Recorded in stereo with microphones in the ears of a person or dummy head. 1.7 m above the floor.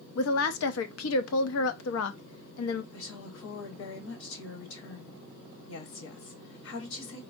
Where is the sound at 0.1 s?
85° left, 0.6 m.